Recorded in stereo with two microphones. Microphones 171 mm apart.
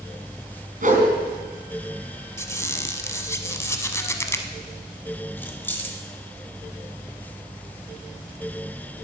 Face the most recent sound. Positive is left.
turn(degrees=10)  # may be behind; listen again after turning